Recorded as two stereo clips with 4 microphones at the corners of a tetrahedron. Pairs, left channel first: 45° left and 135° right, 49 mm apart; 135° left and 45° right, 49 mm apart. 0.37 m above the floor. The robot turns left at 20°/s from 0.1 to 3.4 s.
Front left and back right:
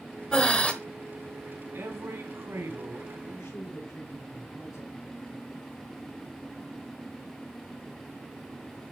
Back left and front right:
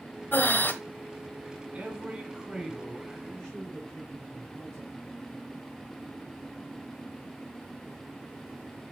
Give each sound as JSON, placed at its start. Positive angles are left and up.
{"t": 0.3, "sound": "breathing", "azimuth_deg": 115, "distance_m": 1.1}
{"t": 1.7, "sound": "a man speaking", "azimuth_deg": -110, "distance_m": 3.5}
{"t": 3.3, "sound": "a woman speaking", "azimuth_deg": 55, "distance_m": 4.5}